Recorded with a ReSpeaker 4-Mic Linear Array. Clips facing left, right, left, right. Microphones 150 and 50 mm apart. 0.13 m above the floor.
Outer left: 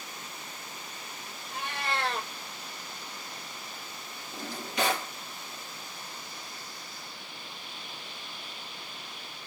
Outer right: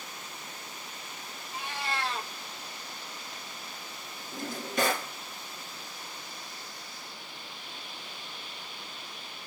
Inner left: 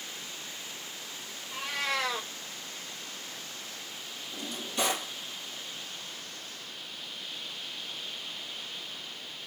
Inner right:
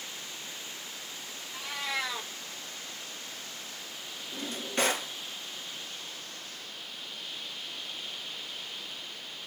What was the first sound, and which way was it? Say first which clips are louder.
A cat meowing: outer left 2 dB, inner left 3 dB; 60° left (ahead or behind).